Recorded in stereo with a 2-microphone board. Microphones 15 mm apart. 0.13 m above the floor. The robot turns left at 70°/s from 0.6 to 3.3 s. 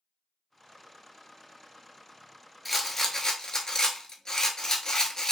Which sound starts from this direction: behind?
A rattle, at 2.6 s.